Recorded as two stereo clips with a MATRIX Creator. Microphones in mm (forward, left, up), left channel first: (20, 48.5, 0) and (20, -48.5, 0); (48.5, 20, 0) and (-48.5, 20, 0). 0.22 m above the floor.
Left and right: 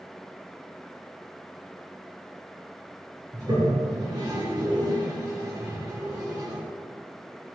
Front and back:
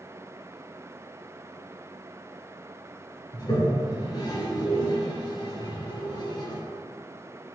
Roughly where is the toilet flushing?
Ahead right.